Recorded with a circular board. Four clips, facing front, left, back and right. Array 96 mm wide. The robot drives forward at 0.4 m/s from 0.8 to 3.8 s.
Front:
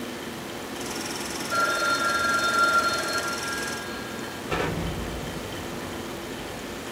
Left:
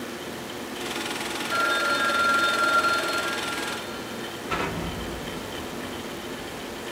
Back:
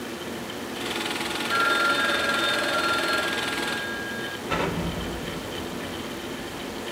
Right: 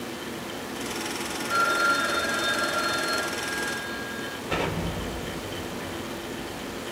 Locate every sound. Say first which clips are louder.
1.5 s a phone ringing: right 1 dB, back 1 dB; 145° right, 1.8 m; by 4.4 s 155° right, 2.5 m
4.5 s an explosion: right 1 dB, back 1 dB; straight behind, 2.5 m